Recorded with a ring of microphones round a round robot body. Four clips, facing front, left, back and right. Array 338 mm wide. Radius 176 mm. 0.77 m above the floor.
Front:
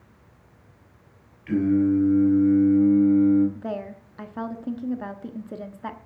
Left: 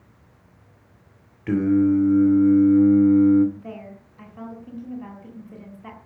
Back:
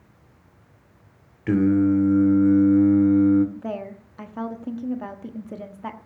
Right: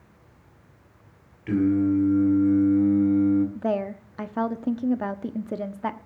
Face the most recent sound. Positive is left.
turn(degrees=-85)